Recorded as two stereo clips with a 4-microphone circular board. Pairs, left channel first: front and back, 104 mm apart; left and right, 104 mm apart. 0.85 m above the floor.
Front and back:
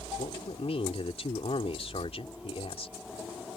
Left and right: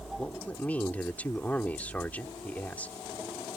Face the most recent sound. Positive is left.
turn(degrees=15)